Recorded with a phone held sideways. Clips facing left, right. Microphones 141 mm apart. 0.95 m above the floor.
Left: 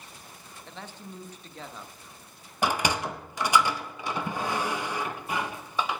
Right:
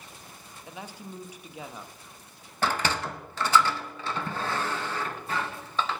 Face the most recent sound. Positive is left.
turn(degrees=15)  # may be behind; listen again after turning